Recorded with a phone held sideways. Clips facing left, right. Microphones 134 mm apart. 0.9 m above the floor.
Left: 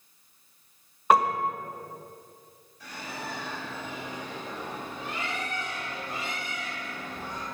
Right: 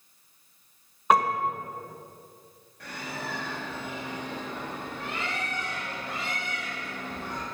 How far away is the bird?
About 4 m.